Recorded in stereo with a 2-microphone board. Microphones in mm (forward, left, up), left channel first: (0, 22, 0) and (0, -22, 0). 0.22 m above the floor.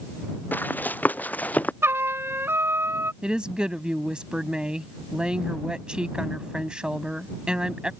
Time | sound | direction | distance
0.5 | running footsteps | 40° left (ahead or behind) | ?
1.8 | a trumpet | 70° right (ahead or behind) | ?
3.2 | a woman speaking | 20° right (ahead or behind) | ?